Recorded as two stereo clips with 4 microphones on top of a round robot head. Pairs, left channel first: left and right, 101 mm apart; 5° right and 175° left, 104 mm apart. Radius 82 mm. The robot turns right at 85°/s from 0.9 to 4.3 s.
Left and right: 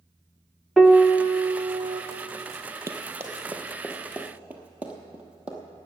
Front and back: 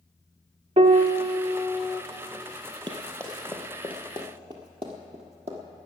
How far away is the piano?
About 0.7 m.